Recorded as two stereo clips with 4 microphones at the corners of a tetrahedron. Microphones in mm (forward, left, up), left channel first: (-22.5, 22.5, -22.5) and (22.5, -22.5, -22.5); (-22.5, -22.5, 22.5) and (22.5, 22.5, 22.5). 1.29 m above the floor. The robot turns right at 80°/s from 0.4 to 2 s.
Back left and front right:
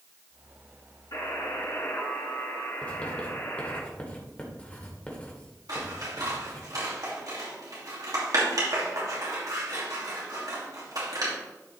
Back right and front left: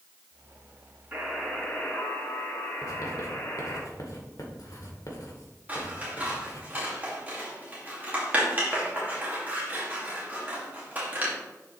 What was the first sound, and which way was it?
A buzzer, 105° left.